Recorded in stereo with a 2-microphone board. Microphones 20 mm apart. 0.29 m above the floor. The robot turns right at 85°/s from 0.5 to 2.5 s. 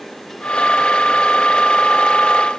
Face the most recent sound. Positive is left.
No sound to turn to.